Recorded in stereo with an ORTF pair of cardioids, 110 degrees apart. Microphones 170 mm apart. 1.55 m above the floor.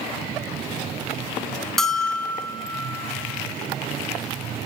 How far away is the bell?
About 0.7 m.